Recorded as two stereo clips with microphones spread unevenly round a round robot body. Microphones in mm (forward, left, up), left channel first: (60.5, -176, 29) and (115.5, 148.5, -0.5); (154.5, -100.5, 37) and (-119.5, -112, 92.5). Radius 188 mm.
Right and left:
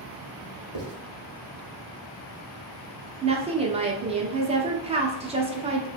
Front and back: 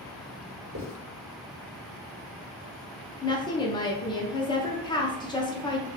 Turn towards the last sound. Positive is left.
turn(degrees=35)